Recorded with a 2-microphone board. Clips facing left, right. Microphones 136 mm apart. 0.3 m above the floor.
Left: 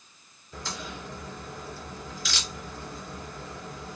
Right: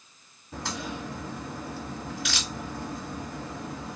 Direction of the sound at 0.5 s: 65° right (ahead or behind).